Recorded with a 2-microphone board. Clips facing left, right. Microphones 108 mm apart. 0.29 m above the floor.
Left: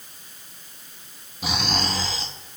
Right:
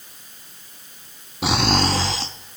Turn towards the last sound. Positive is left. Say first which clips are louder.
# right 7 dB
turn(degrees=-85)